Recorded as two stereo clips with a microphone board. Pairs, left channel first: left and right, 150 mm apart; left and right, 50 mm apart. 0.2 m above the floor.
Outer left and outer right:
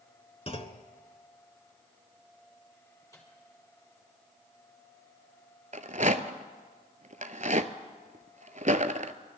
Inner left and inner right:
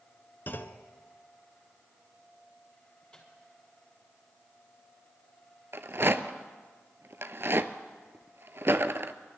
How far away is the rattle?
About 0.7 m.